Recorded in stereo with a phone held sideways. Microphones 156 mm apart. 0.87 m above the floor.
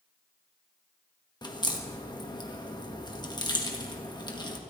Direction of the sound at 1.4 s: 30° left (ahead or behind).